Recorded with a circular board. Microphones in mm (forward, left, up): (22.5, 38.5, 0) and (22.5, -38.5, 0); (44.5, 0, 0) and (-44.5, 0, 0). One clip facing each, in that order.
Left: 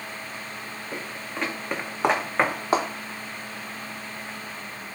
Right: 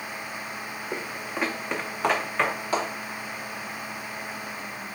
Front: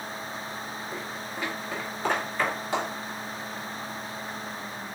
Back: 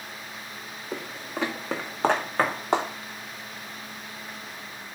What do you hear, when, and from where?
0.9 s footsteps: 155° right, 1.1 m; by 2.9 s 135° left, 1.4 m